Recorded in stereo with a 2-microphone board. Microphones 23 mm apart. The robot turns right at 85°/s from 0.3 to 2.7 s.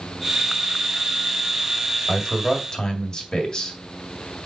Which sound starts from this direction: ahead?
A man speaking, at 2.1 s.